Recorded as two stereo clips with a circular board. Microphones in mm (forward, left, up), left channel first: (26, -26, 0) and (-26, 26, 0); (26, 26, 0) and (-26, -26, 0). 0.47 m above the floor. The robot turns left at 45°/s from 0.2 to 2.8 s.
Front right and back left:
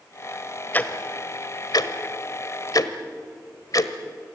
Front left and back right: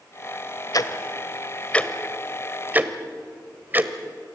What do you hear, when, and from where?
0.7 s ticking: 20° left, 1.2 m; by 3.9 s 75° right, 1.2 m